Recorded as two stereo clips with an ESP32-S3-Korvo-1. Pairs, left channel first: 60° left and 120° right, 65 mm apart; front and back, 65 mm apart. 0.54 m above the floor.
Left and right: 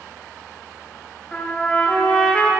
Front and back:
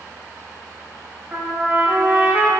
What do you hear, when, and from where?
1.3 s a trumpet: 130° left, 1.2 m